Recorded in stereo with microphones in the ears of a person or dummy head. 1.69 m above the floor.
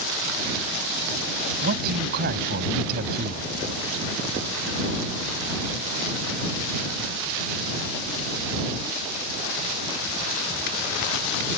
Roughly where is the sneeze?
No sneeze in this recording.